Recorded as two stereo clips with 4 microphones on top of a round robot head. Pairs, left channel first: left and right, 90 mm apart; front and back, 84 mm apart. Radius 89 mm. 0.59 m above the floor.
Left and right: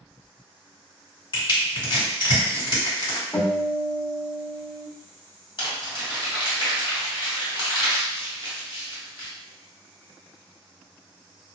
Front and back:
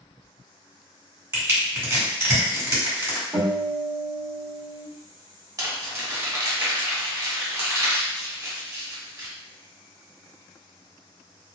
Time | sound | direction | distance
1.3 | crushing | 125° left | 1.8 m
3.3 | a guitar | 160° left | 1.3 m
5.6 | crumpling | 125° left | 1.6 m